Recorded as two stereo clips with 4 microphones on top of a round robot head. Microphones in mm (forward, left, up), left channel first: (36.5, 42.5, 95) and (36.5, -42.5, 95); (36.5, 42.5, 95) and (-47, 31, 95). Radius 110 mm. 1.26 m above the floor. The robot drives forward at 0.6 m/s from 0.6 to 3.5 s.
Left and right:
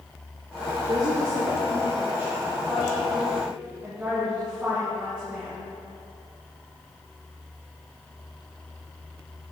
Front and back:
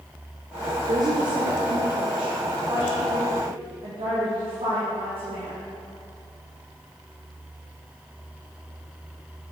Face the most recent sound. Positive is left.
turn(degrees=-165)